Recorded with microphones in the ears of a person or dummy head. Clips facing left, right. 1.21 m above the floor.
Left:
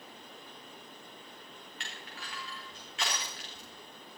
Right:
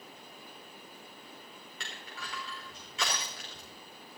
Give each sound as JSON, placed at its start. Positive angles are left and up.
{"t": 1.8, "sound": "crushing", "side_deg": -75, "distance_m": 4.5}